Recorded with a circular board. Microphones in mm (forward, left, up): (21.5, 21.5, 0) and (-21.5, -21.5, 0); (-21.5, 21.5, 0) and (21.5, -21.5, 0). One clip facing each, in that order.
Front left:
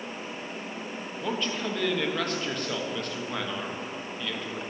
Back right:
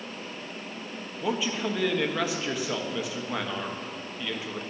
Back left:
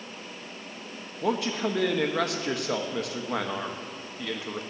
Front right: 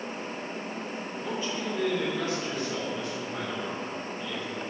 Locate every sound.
1.2 s a man speaking: 145° left, 1.1 m